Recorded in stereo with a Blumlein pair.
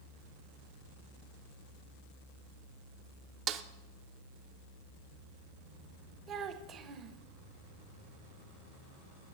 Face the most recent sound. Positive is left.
turn(degrees=-25)